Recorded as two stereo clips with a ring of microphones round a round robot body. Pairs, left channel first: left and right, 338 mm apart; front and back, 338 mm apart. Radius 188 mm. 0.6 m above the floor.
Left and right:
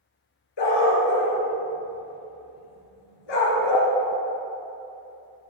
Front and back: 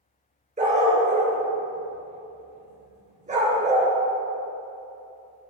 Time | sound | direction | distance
0.6 | a dog barking | 110° left | 3 m